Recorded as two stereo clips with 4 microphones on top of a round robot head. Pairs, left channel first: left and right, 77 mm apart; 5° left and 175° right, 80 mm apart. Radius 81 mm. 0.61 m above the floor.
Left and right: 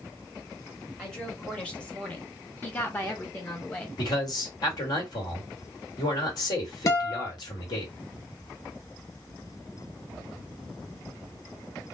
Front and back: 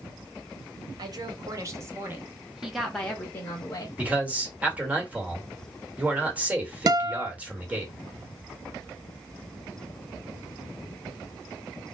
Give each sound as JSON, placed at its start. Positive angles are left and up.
{"t": 1.0, "sound": "a woman speaking", "azimuth_deg": 170, "distance_m": 1.4}
{"t": 4.0, "sound": "a man speaking", "azimuth_deg": 115, "distance_m": 1.4}
{"t": 6.9, "sound": "a guitar", "azimuth_deg": 145, "distance_m": 0.6}